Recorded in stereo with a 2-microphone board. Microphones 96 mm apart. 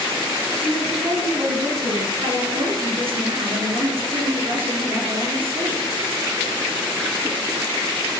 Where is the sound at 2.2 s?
65° right (ahead or behind), 5.5 m.